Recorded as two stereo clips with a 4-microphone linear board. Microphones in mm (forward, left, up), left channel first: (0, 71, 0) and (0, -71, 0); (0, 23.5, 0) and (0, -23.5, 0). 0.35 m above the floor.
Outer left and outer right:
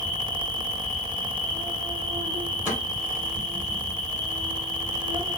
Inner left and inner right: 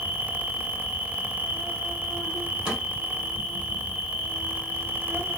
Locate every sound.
0.0 s an insect: 35° right (ahead or behind), 1.0 m
2.7 s a snare drum: 15° right (ahead or behind), 1.9 m